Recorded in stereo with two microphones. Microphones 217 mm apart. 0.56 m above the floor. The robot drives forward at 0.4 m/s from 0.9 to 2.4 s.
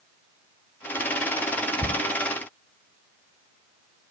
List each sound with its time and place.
1.8 s a cupboard door: 35° right (ahead or behind)